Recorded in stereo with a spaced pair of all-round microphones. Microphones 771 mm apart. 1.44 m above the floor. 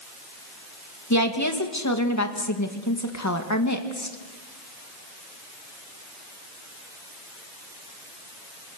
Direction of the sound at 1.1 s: 20° left (ahead or behind).